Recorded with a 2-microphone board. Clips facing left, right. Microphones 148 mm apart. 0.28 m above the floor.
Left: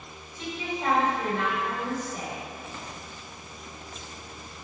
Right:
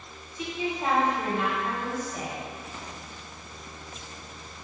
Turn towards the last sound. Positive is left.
turn(degrees=-10)  # may be behind; listen again after turning